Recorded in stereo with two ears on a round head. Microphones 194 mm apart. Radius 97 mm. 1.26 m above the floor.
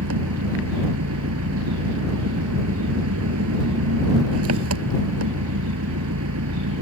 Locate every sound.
0.0 s an engine running: 75° right (ahead or behind)